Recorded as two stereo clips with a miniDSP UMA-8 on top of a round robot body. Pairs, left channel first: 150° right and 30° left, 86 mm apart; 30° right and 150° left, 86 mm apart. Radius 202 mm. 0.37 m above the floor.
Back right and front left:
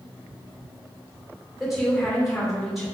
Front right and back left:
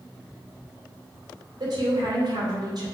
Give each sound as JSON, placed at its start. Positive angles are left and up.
{"t": 1.6, "sound": "a woman speaking", "azimuth_deg": 120, "distance_m": 2.5}